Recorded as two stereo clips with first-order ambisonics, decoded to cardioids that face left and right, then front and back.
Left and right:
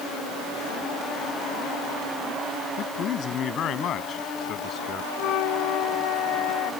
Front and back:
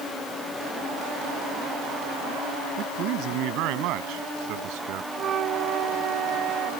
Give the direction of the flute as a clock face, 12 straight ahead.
8 o'clock.